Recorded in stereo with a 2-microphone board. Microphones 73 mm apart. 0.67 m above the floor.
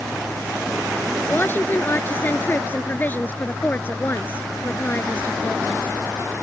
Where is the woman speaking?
25° left (ahead or behind).